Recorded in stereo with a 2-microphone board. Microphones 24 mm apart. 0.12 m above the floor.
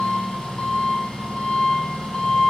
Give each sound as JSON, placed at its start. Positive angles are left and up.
{"t": 0.0, "sound": "an engine running", "side_deg": 40, "distance_m": 1.7}